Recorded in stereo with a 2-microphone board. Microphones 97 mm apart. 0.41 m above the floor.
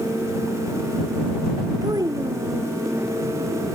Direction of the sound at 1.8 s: 40° right (ahead or behind).